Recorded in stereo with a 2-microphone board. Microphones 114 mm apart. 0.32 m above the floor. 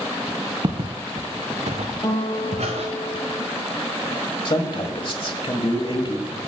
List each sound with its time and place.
0.6 s footsteps: 40° right (ahead or behind), 1.2 m; by 2.9 s 70° right (ahead or behind), 2 m
2.0 s a guitar: 35° left (ahead or behind), 2 m
4.5 s a man speaking: 45° left (ahead or behind), 1.6 m